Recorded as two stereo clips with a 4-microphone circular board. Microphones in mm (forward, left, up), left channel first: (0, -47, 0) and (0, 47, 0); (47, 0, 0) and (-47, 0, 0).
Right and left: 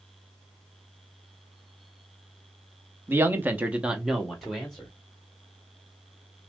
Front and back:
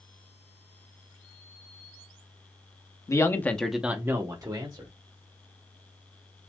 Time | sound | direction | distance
3.1 | a man speaking | 35° left | 0.9 m